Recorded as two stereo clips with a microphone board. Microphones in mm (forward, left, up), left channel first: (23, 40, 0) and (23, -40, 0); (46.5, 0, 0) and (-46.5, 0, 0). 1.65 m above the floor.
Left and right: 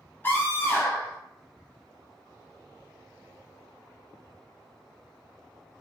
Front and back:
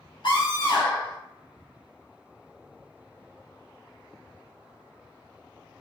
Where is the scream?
25° left, 1.1 m.